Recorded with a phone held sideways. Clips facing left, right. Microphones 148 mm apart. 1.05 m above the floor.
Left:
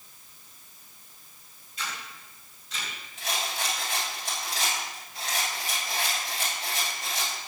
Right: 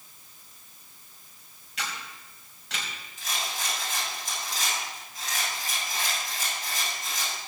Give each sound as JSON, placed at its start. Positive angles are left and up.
{"t": 1.8, "sound": "a camera shutter", "side_deg": -75, "distance_m": 5.0}
{"t": 3.2, "sound": "a rattle", "side_deg": 65, "distance_m": 7.0}